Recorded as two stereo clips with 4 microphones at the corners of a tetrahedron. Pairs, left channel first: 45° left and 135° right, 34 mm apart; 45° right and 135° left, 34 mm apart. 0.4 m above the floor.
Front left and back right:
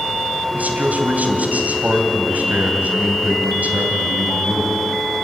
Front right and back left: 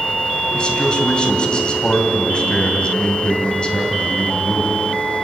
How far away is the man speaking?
About 2.5 m.